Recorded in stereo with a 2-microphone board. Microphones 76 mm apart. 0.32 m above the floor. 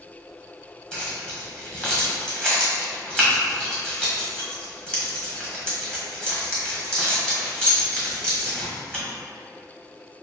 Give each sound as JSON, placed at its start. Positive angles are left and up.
{"t": 0.9, "sound": "keys jangling", "side_deg": 10, "distance_m": 1.2}